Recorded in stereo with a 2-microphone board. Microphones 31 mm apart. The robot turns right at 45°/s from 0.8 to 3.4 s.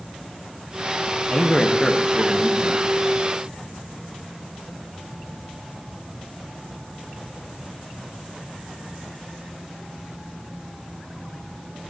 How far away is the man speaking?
About 0.7 m.